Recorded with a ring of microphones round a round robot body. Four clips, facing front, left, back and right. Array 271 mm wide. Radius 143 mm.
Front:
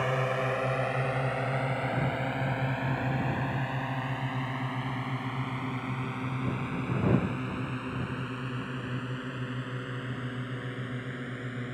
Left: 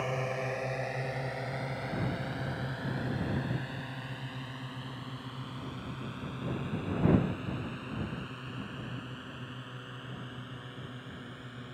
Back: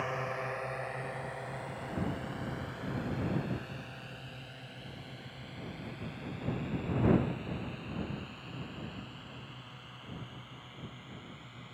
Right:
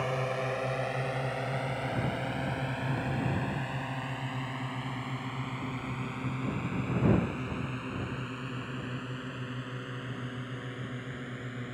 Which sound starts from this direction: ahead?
A drone, at 0.0 s.